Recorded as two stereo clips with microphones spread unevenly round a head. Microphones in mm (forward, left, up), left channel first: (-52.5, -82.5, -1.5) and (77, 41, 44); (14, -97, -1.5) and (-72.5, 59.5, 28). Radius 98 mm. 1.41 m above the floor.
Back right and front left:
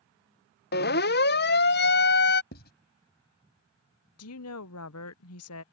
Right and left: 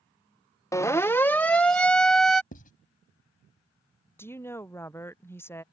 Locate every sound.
0.7 s a siren: 130° right; by 2.4 s 150° right
2.5 s writing: 100° right
4.2 s a woman speaking: 140° right